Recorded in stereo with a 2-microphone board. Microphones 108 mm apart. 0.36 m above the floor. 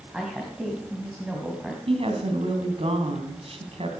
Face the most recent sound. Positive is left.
turn(degrees=-65)  # may be behind; listen again after turning